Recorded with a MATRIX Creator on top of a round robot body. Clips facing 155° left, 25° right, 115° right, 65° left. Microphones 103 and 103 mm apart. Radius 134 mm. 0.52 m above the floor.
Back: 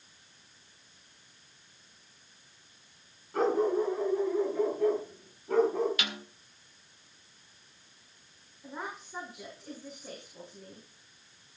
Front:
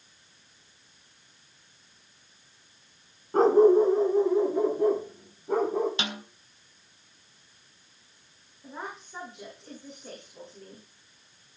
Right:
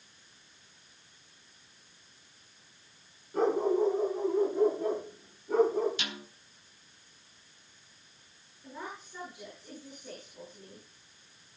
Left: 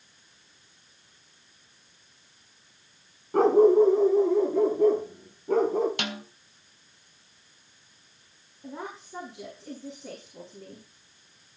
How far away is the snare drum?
About 3.5 m.